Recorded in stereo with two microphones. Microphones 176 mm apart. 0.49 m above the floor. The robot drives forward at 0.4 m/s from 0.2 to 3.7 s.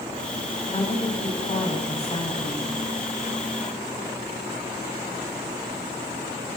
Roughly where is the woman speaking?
Left.